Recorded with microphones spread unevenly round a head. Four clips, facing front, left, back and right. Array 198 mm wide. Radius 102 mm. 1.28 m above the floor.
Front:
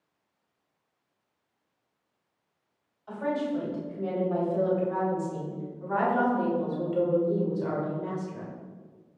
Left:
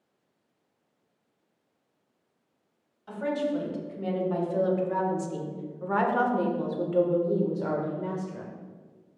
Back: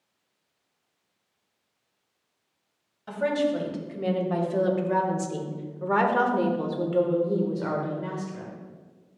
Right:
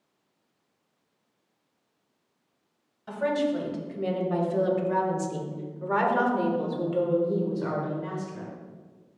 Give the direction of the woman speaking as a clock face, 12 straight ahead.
5 o'clock.